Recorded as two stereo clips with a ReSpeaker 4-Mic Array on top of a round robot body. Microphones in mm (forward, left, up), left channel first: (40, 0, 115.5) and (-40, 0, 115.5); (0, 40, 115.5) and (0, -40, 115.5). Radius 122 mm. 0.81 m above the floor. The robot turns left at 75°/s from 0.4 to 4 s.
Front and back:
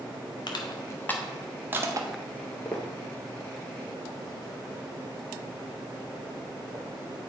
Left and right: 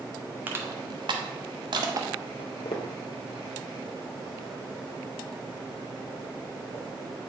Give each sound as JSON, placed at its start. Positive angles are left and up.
{"t": 0.5, "sound": "crushing", "azimuth_deg": -20, "distance_m": 1.0}
{"t": 2.4, "sound": "footsteps", "azimuth_deg": 90, "distance_m": 1.2}